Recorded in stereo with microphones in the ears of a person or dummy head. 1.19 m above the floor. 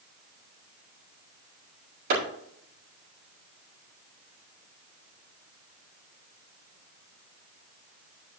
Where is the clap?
50° right (ahead or behind), 6.5 m.